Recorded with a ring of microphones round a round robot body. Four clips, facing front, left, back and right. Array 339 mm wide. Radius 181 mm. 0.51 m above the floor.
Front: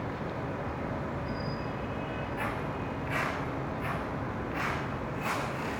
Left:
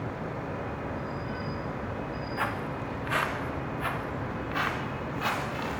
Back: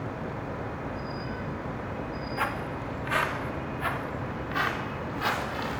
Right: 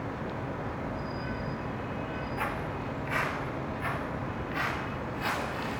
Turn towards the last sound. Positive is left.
turn(degrees=140)